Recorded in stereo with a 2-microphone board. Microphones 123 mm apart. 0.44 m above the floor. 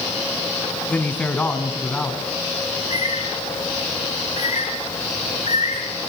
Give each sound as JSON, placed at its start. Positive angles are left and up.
{"t": 0.9, "sound": "a man speaking", "side_deg": 10, "distance_m": 3.5}
{"t": 2.7, "sound": "a bird", "side_deg": 65, "distance_m": 7.0}